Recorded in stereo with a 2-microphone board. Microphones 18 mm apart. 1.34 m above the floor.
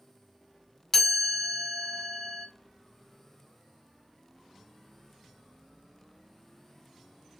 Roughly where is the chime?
Left.